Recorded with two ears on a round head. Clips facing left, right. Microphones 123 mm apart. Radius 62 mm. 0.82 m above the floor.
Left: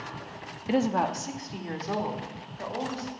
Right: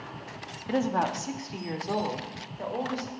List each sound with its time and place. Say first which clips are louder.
0.7 s a woman speaking: left 1 dB; 20° left (ahead or behind), 0.7 m; by 3.1 s 15° right (ahead or behind), 3 m